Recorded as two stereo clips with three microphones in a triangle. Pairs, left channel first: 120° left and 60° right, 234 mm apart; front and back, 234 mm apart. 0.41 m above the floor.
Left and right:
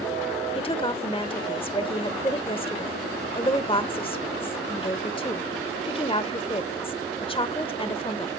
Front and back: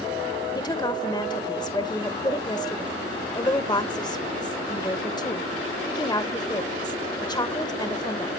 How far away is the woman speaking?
About 1.2 m.